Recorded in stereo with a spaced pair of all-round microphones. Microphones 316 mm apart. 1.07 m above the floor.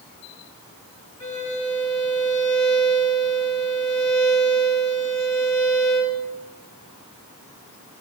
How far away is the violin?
About 3 m.